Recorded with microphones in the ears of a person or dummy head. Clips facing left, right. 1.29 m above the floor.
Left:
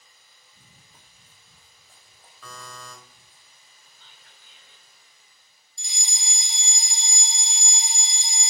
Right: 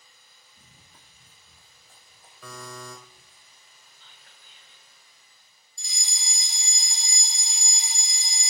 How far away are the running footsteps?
About 2.5 m.